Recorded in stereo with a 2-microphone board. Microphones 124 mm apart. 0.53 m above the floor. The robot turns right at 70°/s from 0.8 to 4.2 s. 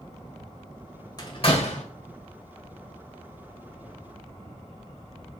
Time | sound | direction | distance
1.2 | a door slam | 35° left (ahead or behind) | 1.8 m